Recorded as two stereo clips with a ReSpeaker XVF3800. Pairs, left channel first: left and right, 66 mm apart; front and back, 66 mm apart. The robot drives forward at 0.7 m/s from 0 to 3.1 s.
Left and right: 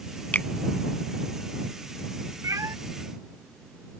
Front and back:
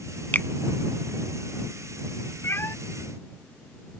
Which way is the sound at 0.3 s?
40° left.